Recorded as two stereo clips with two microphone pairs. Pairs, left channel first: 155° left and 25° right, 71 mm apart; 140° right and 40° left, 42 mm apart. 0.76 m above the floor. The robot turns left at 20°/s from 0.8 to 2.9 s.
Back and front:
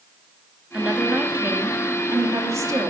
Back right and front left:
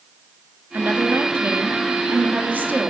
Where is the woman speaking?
40° left, 1.4 m; by 2.9 s straight ahead, 1.4 m.